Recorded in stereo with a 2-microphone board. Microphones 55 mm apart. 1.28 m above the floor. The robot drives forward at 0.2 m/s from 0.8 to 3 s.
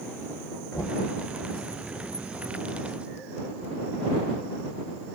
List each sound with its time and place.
0.7 s knocking: 85° left, 1.8 m